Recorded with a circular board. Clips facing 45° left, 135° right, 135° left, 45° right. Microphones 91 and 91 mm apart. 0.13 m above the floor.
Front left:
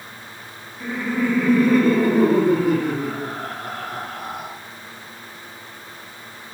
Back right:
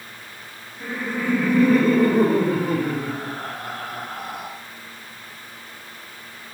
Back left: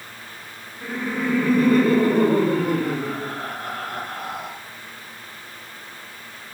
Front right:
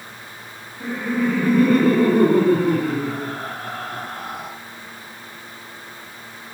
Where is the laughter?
60° right, 2 m; by 4.5 s 25° left, 1.6 m.